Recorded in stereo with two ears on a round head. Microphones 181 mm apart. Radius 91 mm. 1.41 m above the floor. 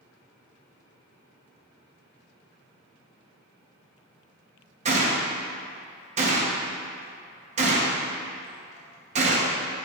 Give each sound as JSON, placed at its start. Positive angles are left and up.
{"t": 4.8, "sound": "a gunshot", "side_deg": -35, "distance_m": 0.9}